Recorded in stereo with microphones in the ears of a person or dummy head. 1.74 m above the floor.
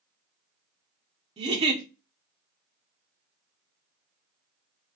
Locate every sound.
1.4 s a giggle: 30° right (ahead or behind), 0.7 m